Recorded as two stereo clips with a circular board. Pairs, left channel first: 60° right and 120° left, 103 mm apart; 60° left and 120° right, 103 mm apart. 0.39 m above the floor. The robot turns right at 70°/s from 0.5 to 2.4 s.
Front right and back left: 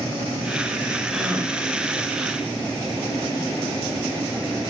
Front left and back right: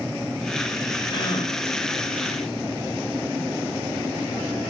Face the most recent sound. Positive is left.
turn(degrees=125)